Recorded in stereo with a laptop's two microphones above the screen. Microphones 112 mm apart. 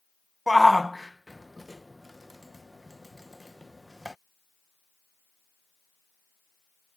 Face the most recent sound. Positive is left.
turn(degrees=0)  # may be behind; listen again after turning